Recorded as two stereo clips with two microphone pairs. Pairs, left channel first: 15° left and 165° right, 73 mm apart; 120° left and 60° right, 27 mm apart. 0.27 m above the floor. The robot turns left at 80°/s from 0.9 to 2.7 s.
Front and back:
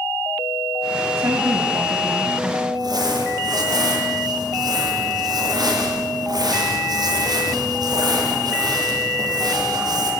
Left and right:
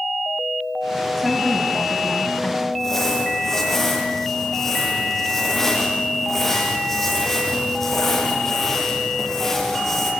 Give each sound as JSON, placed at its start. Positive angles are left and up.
{"t": 1.2, "sound": "a woman speaking", "azimuth_deg": -135, "distance_m": 1.7}
{"t": 2.7, "sound": "crumpling", "azimuth_deg": -160, "distance_m": 7.5}